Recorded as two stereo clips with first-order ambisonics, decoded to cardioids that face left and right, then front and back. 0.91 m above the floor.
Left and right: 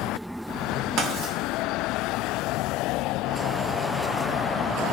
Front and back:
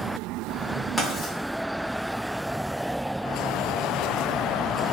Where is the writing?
80° right, 0.8 m.